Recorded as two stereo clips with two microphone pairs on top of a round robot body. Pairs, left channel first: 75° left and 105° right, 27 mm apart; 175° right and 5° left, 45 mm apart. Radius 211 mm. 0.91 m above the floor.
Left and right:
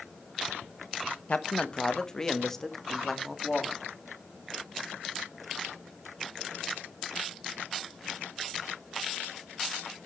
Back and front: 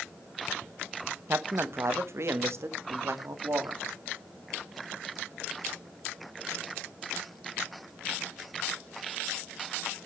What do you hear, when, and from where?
1.3 s a man speaking: 30° left, 1.2 m; by 3.8 s 10° right, 2.5 m